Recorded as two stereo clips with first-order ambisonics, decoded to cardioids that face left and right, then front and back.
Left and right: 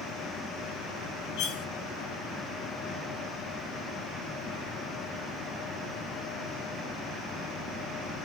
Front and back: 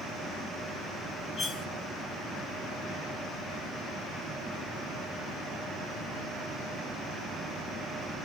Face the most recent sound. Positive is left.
turn(degrees=70)